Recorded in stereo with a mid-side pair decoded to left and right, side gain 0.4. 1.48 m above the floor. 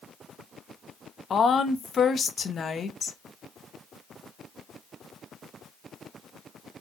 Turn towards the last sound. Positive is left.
turn(degrees=50)